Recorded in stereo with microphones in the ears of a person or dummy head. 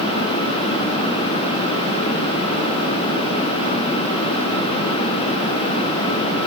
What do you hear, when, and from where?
Only background noise.